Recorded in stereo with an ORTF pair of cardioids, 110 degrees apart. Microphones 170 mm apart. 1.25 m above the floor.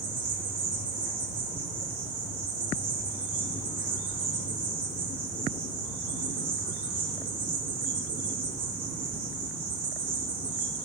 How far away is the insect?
About 3.5 m.